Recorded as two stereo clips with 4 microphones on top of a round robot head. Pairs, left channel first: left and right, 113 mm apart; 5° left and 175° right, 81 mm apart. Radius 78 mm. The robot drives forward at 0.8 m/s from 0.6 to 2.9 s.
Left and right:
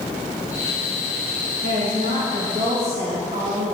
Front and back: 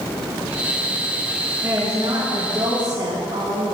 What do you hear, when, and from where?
1.6 s a woman speaking: 105° right, 2 m; by 3.8 s 130° right, 2.5 m